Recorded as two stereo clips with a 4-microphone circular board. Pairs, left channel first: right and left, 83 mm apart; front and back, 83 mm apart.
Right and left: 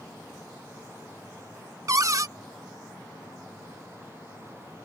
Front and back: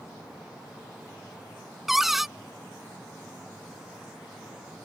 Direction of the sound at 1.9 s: 95° left.